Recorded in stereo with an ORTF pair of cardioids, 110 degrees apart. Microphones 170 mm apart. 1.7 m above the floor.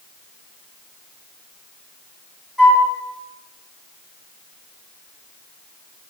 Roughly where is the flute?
Ahead.